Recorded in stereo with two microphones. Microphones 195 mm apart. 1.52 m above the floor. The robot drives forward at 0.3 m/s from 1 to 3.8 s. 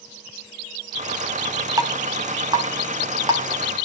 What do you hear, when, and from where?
1.8 s dripping: 20° right (ahead or behind), 1.4 m; by 3.9 s 25° right (ahead or behind), 1.1 m